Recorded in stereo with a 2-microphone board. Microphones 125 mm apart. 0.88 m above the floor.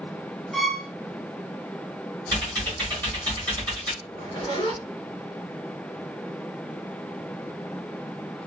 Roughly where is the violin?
Centre.